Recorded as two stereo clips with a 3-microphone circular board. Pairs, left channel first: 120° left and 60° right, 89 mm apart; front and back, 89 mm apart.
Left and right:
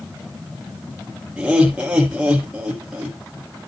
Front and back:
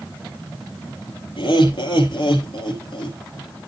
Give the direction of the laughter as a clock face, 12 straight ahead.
11 o'clock.